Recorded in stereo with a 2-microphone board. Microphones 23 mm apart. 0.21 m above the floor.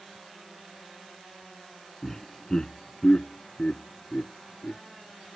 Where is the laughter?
15° left (ahead or behind); by 4.8 s 55° left (ahead or behind).